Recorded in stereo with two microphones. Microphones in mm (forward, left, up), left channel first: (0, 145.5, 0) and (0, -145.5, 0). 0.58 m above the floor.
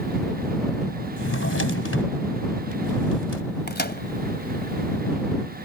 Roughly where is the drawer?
Left.